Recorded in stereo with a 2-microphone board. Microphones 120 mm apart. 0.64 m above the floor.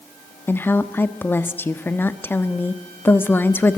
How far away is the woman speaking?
About 1.0 m.